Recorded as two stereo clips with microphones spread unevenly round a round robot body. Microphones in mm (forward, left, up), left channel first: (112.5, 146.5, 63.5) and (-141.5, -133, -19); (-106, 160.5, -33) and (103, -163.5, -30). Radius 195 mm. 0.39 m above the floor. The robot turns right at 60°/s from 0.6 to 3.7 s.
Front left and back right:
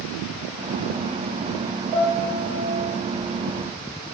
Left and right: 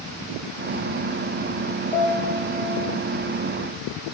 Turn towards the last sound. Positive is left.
turn(degrees=-50)